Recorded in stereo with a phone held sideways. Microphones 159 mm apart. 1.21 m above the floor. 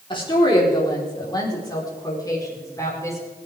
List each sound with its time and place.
0.1 s a woman speaking: 30° left (ahead or behind), 3.5 m; by 3.2 s 20° left (ahead or behind), 5.5 m